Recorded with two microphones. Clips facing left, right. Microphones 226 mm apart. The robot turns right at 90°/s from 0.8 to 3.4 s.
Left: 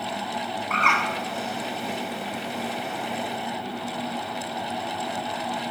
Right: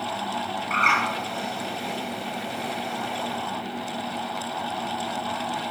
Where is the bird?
35° right (ahead or behind), 1.3 m; by 1.0 s 25° right (ahead or behind), 1.3 m.